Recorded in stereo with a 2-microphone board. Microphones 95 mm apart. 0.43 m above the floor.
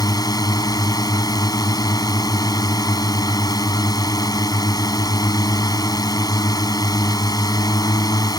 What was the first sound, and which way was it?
A drone, 45° left (ahead or behind).